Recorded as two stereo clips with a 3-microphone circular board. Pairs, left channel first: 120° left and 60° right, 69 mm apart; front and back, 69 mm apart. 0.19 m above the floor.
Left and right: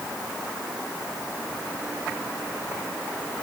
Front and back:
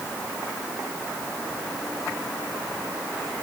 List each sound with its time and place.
Only background noise.